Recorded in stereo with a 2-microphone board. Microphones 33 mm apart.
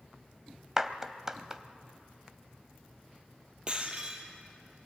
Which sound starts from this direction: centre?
A clap, at 0.8 s.